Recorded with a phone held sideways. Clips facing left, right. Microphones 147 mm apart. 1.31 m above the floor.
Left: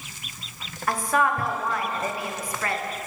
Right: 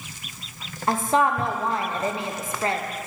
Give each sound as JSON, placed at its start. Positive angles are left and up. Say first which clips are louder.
{"t": 0.9, "sound": "a woman speaking", "louder": "right 2 dB", "side_deg": -25, "distance_m": 0.7}